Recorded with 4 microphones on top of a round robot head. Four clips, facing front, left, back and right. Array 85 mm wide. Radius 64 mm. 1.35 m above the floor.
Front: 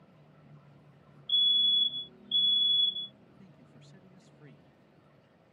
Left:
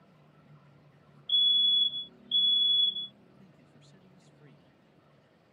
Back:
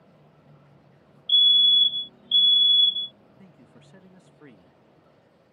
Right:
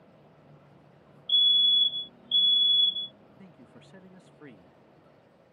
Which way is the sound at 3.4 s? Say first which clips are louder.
Right 7 dB, back 6 dB; 130° right.